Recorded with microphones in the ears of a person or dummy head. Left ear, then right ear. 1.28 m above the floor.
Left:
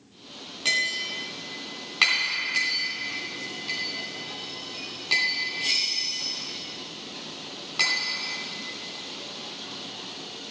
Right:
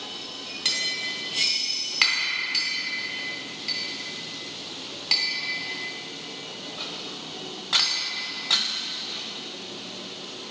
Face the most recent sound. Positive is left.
turn(degrees=-15)  # may be behind; listen again after turning